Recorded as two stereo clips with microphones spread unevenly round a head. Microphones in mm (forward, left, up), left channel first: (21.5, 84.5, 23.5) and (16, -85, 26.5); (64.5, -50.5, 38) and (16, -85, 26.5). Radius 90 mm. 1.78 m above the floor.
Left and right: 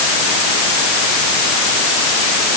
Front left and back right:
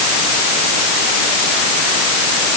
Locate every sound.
Only background noise.